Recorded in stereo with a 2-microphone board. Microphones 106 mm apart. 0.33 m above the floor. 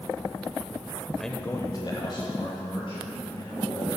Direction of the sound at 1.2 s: Centre (ahead or behind).